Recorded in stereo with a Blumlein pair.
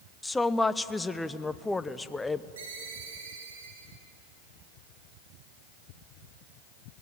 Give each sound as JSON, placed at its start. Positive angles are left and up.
{"t": 0.2, "sound": "a woman speaking", "azimuth_deg": 10, "distance_m": 0.7}
{"t": 2.6, "sound": "a ringtone", "azimuth_deg": -65, "distance_m": 7.5}